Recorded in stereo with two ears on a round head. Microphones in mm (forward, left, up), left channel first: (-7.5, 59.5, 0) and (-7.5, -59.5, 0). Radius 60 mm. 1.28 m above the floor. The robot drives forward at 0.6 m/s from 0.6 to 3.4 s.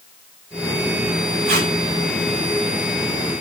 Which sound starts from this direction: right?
Tape being pulled, at 1.4 s.